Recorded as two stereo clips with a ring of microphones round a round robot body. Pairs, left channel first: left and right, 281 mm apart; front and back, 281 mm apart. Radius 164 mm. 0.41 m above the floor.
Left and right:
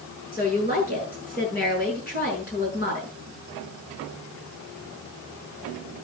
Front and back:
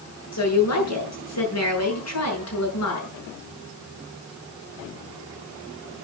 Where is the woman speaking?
25° left, 7 m.